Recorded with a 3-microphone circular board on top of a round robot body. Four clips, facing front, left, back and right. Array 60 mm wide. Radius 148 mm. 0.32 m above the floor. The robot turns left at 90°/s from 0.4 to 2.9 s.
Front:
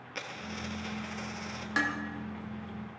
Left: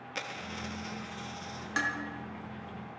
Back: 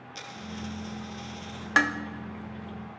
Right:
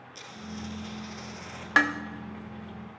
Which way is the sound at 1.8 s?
120° right.